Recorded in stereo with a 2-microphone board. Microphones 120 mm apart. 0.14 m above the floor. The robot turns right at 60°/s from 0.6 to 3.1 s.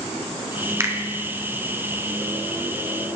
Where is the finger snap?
25° right (ahead or behind), 1.5 m; by 0.9 s 30° right (ahead or behind), 1.5 m.